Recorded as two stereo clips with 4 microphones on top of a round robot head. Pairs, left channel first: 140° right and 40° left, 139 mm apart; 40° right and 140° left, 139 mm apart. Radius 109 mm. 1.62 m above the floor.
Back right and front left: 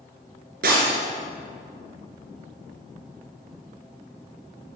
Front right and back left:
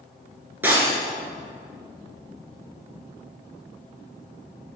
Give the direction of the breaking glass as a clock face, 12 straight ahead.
10 o'clock.